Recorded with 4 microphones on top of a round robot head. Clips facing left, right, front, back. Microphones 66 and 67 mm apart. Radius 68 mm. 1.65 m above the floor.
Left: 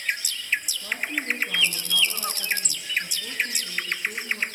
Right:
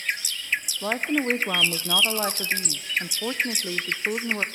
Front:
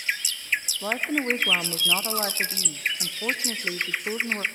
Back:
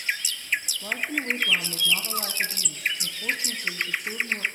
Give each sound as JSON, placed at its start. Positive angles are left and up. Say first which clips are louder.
{"t": 0.8, "sound": "a woman speaking", "louder": "right 5 dB, front 3 dB", "azimuth_deg": -60, "distance_m": 0.7}